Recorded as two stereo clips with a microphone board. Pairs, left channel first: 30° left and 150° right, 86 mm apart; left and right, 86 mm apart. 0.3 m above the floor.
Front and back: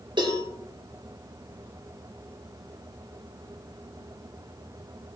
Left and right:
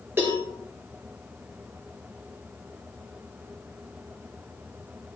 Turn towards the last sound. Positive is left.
turn(degrees=-150)